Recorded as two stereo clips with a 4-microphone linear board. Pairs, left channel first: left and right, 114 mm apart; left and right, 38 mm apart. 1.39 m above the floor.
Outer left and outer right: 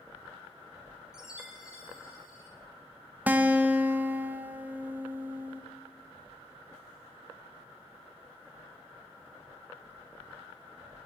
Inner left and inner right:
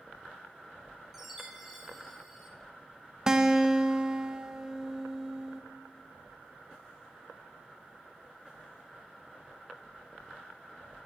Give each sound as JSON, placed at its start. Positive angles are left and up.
{"t": 1.1, "sound": "a chime", "side_deg": -5, "distance_m": 1.5}
{"t": 3.3, "sound": "a guitar", "side_deg": -15, "distance_m": 0.7}